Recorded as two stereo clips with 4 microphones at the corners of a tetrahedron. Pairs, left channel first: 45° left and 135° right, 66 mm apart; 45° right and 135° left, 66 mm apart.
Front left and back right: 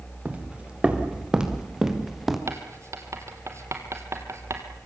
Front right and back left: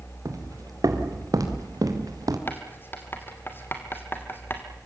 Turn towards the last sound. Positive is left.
turn(degrees=-95)